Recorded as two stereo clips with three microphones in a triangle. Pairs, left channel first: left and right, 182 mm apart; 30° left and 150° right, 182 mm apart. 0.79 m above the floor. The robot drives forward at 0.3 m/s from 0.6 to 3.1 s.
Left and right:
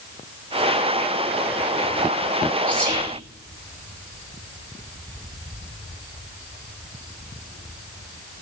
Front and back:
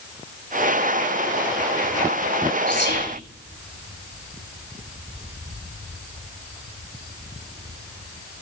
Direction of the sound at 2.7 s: 25° left.